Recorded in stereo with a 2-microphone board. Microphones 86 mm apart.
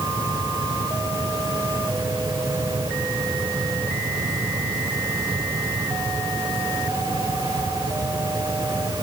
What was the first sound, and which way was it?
Only background noise.